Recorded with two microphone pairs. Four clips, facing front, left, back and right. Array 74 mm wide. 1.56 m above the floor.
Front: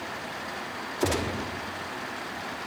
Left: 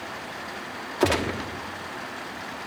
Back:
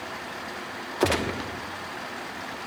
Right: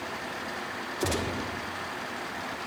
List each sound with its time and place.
1.0 s a gunshot: 130° left, 1.0 m